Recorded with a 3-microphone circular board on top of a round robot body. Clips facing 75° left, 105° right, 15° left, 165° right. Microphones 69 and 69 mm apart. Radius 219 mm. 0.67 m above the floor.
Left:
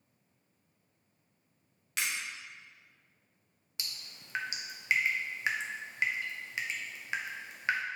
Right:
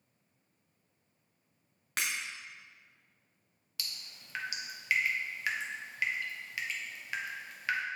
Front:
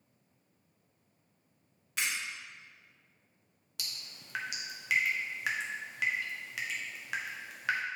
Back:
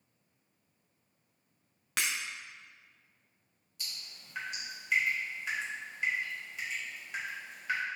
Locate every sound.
2.0 s breaking glass: 150° right, 0.5 m
3.8 s dripping: 10° left, 0.6 m